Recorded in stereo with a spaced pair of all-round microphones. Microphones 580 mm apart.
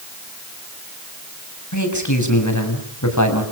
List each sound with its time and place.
1.7 s a man speaking: 30° left (ahead or behind), 6.5 m